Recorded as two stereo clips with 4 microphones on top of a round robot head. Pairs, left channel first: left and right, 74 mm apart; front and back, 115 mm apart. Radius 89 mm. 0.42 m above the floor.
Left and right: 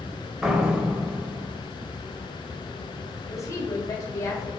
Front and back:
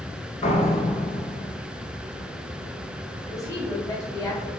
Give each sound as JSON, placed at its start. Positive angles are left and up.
{"t": 0.4, "sound": "a door slam", "azimuth_deg": -10, "distance_m": 1.6}
{"t": 3.3, "sound": "a woman speaking", "azimuth_deg": 55, "distance_m": 1.9}